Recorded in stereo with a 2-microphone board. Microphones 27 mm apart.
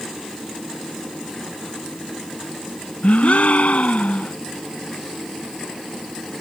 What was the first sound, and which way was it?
A gasp, 65° left (ahead or behind).